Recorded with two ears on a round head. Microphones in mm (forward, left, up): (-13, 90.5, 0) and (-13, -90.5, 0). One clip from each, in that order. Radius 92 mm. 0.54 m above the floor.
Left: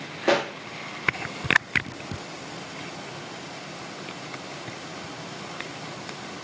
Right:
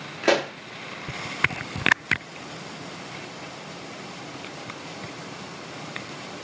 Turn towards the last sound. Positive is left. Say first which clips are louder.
# right 1 dB
turn(degrees=-25)  # may be behind; listen again after turning